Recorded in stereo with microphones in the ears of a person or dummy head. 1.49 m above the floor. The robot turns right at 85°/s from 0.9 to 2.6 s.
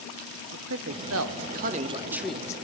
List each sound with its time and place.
0.5 s a man speaking: 55° right (ahead or behind), 0.5 m; by 2.5 s 25° left (ahead or behind), 0.5 m